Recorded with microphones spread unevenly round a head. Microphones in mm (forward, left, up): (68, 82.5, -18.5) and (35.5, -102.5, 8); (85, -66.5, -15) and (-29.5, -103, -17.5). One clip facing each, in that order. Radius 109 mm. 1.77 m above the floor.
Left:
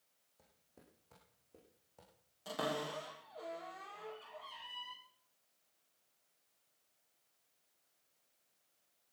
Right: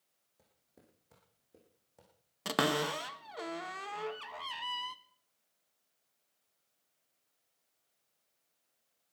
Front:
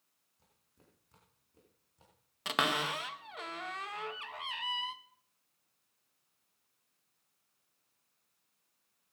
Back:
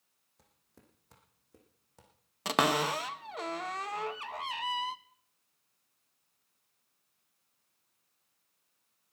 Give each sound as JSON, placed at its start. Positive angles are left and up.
{"t": 0.4, "sound": "footsteps", "azimuth_deg": 180, "distance_m": 4.5}
{"t": 2.5, "sound": "a cupboard door", "azimuth_deg": -110, "distance_m": 1.3}